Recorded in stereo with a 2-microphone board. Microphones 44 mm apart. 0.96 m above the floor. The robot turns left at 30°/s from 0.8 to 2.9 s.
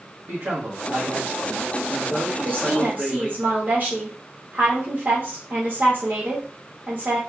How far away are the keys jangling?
No keys jangling in this recording.